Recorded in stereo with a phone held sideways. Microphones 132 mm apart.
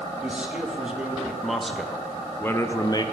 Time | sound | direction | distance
0.2 | a man speaking | 10° right (ahead or behind) | 1.8 m